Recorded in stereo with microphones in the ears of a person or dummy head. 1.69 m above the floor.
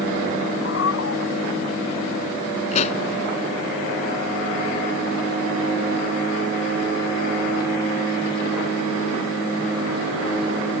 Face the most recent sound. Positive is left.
turn(degrees=40)  # may be behind; listen again after turning